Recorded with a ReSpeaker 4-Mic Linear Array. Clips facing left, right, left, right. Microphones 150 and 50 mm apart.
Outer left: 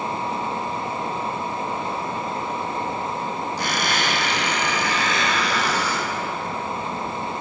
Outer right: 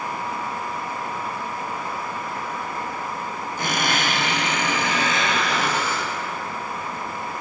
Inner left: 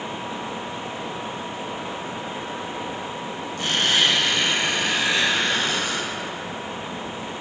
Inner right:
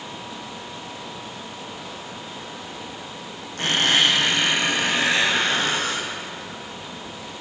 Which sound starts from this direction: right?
A squeak, at 3.6 s.